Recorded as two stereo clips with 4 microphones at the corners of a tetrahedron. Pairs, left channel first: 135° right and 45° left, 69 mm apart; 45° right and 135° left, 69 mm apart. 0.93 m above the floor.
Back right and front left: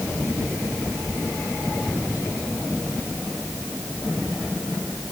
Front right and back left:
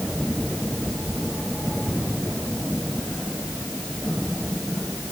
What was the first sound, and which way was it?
Only background noise.